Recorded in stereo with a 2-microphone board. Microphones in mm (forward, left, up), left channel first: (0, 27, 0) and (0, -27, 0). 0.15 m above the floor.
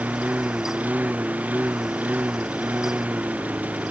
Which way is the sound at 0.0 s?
25° right (ahead or behind).